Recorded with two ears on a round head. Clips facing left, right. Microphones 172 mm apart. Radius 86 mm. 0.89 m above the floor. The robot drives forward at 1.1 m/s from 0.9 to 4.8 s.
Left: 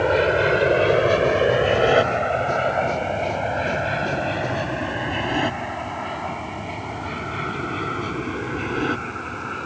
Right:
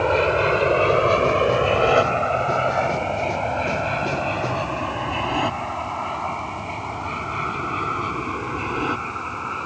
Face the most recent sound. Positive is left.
turn(degrees=15)  # may be behind; listen again after turning